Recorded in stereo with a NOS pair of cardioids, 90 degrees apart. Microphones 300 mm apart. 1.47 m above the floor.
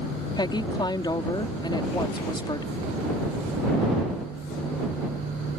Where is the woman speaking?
15° left.